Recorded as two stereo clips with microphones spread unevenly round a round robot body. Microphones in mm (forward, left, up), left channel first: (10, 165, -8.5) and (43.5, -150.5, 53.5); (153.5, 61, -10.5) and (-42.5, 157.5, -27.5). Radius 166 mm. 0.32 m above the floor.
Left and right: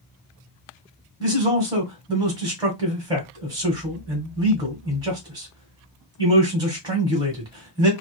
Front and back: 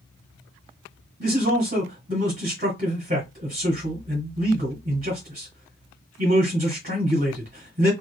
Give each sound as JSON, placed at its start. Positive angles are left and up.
{"t": 1.2, "sound": "a man speaking", "azimuth_deg": -170, "distance_m": 1.1}